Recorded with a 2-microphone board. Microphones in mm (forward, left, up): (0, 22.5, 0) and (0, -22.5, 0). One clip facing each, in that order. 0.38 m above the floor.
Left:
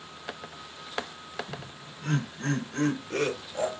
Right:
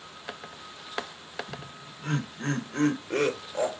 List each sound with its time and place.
1.5 s laughter: 5° right (ahead or behind), 1.2 m; by 3.8 s 25° right (ahead or behind), 1.5 m